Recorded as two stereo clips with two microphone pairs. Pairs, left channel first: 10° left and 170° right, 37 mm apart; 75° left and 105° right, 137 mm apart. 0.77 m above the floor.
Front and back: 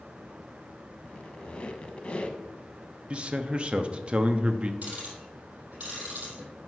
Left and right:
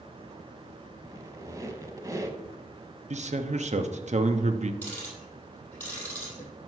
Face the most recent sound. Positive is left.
turn(degrees=150)